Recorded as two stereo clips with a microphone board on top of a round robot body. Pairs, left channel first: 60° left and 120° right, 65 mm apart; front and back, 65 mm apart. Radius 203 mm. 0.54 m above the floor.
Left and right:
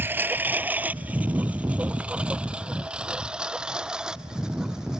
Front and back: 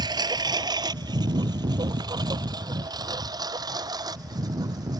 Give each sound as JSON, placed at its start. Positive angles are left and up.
{"t": 0.0, "sound": "a lawn mower", "azimuth_deg": 180}